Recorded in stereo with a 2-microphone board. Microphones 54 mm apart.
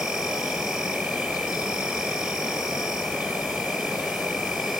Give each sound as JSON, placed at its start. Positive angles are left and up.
{"t": 0.0, "sound": "an insect", "side_deg": -5, "distance_m": 2.5}